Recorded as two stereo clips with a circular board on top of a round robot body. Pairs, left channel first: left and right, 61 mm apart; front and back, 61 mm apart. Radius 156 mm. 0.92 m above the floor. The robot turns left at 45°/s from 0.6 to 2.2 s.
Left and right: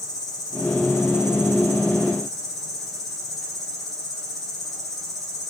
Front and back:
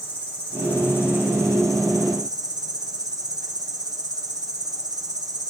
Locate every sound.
0.0 s an insect: 70° left, 0.8 m; by 5.5 s straight ahead, 0.8 m